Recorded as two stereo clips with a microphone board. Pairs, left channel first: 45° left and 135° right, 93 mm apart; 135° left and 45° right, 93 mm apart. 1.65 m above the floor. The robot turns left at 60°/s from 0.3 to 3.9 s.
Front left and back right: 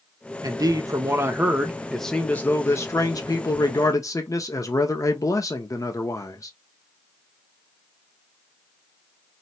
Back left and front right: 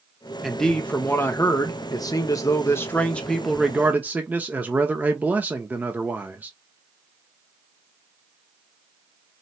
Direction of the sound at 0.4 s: 135° right.